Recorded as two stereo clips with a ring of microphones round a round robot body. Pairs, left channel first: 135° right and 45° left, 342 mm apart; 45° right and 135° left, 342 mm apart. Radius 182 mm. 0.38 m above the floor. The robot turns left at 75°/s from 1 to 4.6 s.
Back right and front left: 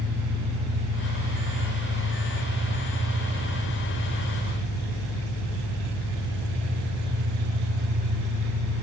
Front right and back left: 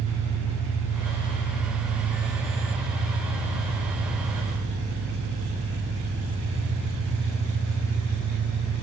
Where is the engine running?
45° right, 2.5 m; by 8.8 s 45° left, 2.5 m.